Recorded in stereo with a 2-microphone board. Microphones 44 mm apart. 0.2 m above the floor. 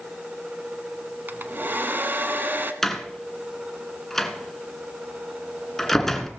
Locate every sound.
1.3 s a hair dryer: 50° right (ahead or behind), 1.0 m
2.8 s a door slam: 10° left (ahead or behind), 1.5 m